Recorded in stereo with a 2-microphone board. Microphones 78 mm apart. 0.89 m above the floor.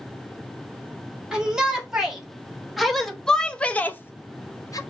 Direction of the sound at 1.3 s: 10° right (ahead or behind).